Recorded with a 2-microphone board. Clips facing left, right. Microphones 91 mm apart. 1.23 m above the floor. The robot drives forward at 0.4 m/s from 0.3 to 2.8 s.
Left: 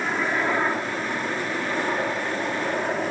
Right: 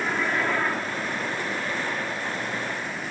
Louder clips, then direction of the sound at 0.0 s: Left 1 dB; 10° left (ahead or behind).